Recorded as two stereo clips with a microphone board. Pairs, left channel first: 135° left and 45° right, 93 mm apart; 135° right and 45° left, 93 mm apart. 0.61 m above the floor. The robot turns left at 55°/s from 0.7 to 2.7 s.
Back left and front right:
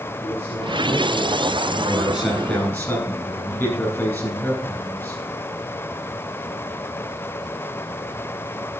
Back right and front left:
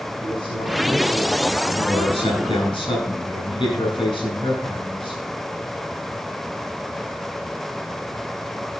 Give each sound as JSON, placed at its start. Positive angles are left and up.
{"t": 0.2, "sound": "a man speaking", "azimuth_deg": -115, "distance_m": 3.0}
{"t": 1.7, "sound": "a man speaking", "azimuth_deg": -105, "distance_m": 7.0}